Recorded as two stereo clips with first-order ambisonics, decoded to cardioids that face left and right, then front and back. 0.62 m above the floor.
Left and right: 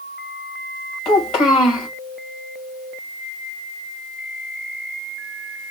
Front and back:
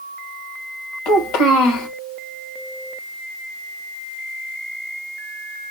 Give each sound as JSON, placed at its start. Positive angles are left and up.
{"t": 1.1, "sound": "a child speaking", "azimuth_deg": 40, "distance_m": 2.5}